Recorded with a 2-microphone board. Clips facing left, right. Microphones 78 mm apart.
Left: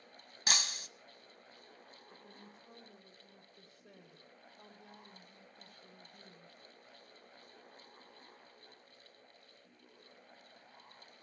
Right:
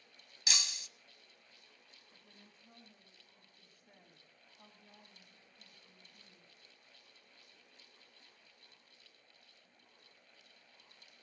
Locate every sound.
0.5 s breaking glass: 50° left (ahead or behind), 0.8 m
2.1 s a woman speaking: 80° left, 8 m